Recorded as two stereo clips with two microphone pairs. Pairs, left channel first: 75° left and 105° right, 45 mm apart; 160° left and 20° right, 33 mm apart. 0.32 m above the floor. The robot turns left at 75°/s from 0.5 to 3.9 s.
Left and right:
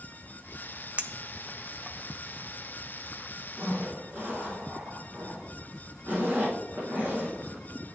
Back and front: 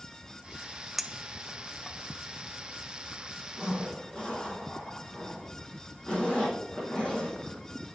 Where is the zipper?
120° right, 4 m; by 8.0 s 145° right, 4 m.